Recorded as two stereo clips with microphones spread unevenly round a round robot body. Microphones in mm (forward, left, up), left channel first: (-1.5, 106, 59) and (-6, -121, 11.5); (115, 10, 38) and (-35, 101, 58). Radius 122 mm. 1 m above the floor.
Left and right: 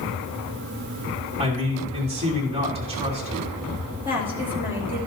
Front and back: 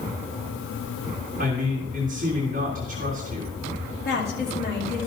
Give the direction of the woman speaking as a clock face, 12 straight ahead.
12 o'clock.